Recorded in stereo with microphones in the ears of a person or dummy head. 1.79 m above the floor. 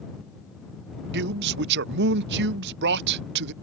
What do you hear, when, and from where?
1.1 s a man speaking: 60° right (ahead or behind)